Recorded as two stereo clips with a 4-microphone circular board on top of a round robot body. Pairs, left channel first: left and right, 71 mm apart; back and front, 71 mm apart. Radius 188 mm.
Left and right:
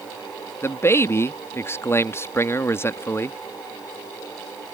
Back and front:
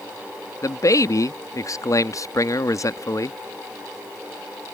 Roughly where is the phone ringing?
I don't hear a phone ringing.